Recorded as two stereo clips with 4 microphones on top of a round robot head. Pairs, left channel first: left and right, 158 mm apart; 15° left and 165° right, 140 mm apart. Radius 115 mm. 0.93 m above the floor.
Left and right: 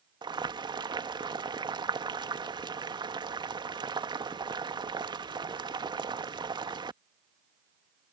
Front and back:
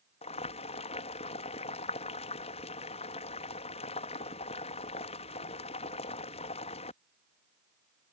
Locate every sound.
0.2 s boiling: 30° right